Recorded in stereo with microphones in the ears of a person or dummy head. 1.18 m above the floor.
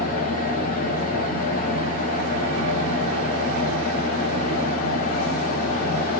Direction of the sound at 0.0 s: 45° left (ahead or behind).